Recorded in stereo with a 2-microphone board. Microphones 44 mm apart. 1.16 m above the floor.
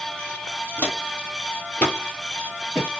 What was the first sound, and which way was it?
Footsteps, 45° left (ahead or behind).